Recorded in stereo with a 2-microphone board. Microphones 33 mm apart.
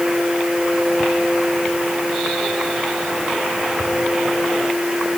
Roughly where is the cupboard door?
I don't hear a cupboard door.